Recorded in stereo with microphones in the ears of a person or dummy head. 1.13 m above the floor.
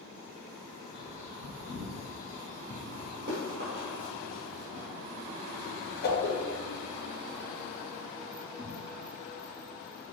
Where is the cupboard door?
55° right (ahead or behind), 1.0 m.